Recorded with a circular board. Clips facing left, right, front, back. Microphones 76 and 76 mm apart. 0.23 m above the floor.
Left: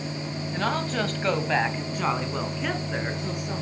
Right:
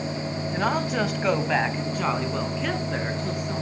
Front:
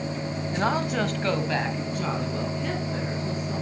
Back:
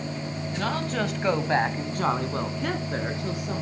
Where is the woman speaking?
25° right, 1.3 m; by 3.6 s 175° left, 3.5 m.